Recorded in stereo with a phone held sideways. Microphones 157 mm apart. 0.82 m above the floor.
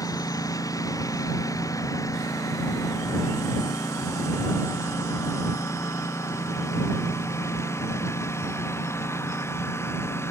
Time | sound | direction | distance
0.0 | a lawn mower | 20° left (ahead or behind) | ?